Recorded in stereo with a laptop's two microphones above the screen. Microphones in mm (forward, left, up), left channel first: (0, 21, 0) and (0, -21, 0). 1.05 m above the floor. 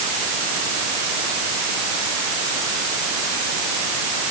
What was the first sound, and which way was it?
Only background noise.